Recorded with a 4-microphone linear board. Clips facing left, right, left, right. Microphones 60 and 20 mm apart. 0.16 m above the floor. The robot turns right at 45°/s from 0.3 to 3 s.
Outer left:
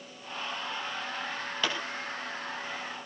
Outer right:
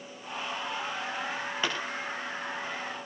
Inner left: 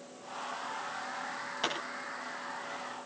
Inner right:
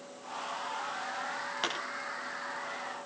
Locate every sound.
1.6 s a pop: 20° right (ahead or behind), 9.5 m; by 1.8 s 15° right (ahead or behind), 9.5 m